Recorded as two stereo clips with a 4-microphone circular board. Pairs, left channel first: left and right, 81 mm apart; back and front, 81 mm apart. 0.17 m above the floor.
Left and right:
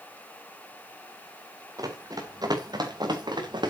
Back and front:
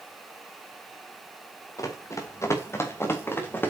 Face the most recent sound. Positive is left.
turn(degrees=-115)